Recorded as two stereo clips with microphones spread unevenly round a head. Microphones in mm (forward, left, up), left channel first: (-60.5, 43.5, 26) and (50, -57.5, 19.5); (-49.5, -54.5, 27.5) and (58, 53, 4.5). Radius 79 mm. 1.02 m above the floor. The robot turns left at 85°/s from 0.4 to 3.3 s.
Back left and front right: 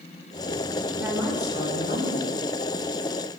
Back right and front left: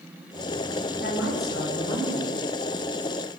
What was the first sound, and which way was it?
A woman speaking, 115° right.